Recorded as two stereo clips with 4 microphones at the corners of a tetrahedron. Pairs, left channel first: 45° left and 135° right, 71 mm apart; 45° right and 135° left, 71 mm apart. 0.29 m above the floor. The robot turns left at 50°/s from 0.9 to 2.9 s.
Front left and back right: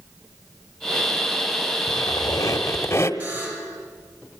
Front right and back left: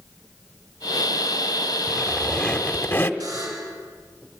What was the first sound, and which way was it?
A squeak, 55° left.